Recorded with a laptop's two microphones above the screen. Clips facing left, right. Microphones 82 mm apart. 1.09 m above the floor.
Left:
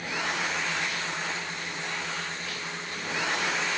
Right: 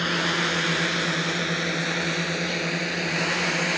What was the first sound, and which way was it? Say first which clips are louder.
A drone: right 6 dB; 85° right.